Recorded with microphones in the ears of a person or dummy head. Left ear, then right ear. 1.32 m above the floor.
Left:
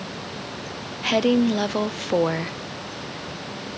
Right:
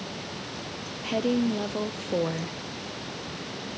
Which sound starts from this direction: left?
A woman speaking, at 1.0 s.